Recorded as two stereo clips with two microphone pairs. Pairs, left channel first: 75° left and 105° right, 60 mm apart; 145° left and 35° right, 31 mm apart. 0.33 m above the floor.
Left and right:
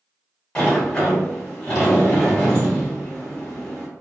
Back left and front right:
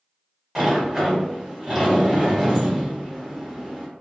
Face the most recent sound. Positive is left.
turn(degrees=35)